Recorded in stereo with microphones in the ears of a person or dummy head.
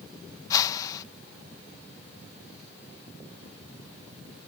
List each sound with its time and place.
0.5 s a whoosh: 20° left (ahead or behind)